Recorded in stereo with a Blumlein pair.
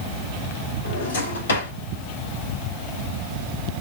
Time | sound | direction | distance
0.8 | a drawer | 70° left | 3 m